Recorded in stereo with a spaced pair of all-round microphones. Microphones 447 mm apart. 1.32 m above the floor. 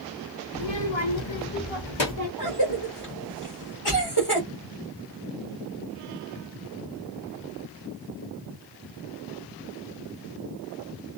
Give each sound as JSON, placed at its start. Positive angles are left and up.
{"t": 0.5, "sound": "a child speaking", "side_deg": 55, "distance_m": 0.7}
{"t": 2.4, "sound": "a cough", "side_deg": 55, "distance_m": 1.2}